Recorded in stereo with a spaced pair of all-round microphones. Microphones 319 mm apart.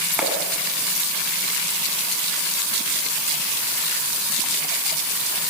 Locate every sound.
0.2 s a clap: centre (ahead or behind), 7.5 m